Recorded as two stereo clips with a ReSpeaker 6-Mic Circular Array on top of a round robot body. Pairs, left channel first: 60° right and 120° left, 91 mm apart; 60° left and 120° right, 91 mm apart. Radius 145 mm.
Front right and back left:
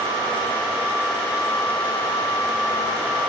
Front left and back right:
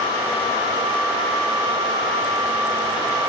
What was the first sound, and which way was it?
Only background noise.